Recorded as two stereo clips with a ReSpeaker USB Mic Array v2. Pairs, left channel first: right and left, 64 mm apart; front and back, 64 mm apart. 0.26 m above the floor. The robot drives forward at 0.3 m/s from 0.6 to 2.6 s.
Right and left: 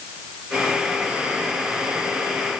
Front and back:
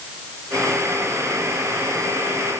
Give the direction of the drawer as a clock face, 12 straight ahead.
No drawer in this recording.